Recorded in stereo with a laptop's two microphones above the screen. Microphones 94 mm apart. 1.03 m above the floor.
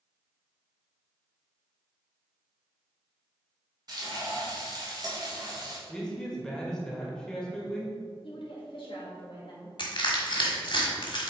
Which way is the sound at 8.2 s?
65° left (ahead or behind).